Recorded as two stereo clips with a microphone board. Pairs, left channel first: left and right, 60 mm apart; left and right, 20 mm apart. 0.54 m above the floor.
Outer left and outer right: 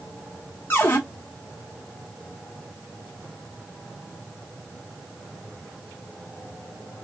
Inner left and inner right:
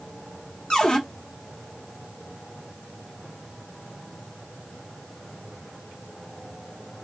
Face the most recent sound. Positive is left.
turn(degrees=40)  # may be behind; listen again after turning